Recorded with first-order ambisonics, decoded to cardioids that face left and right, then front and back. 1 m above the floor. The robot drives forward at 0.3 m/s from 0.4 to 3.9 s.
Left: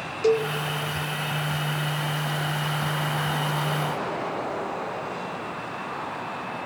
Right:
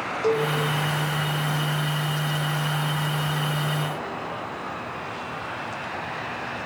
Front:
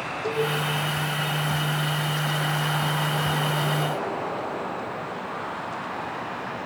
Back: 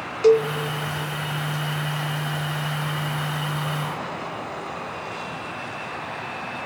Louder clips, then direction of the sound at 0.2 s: Left 2 dB, back 10 dB; 160° left.